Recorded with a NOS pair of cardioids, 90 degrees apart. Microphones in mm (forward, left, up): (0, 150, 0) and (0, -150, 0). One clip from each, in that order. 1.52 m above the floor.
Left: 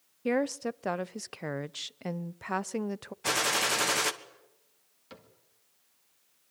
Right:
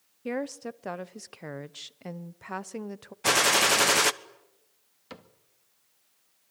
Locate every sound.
0.2 s a woman speaking: 20° left, 0.6 m
3.2 s a gunshot: 30° right, 1.1 m
5.1 s a cupboard door: 35° right, 2 m